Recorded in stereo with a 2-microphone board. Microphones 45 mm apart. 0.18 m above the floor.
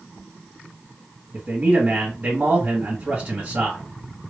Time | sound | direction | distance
1.3 | a man speaking | 25° right (ahead or behind) | 1.3 m